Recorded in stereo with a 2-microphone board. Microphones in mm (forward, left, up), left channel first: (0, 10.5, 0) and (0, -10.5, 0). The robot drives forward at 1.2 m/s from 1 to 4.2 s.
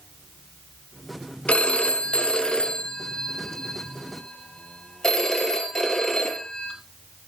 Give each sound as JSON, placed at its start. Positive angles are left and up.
{"t": 1.5, "sound": "a phone ringing", "side_deg": 75, "distance_m": 1.6}